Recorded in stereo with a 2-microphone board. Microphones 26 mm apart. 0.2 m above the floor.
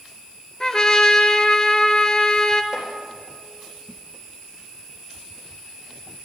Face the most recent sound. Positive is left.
turn(degrees=-15)  # may be behind; listen again after turning